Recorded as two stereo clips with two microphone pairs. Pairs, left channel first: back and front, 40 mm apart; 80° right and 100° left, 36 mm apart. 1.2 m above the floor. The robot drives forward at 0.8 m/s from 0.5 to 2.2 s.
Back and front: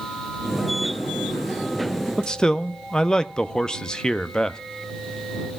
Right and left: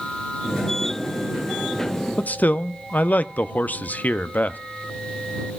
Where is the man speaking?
110° right, 0.6 m; by 4.6 s 115° right, 0.6 m.